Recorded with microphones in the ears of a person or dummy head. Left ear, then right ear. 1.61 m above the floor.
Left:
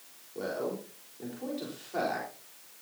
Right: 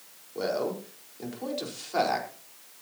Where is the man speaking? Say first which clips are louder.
Right 5 dB; 30° right (ahead or behind), 4.5 m.